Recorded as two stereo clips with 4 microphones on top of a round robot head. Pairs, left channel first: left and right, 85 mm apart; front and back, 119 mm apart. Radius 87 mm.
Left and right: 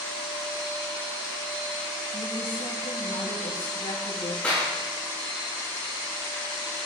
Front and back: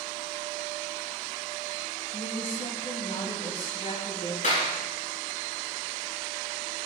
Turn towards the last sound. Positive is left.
turn(degrees=10)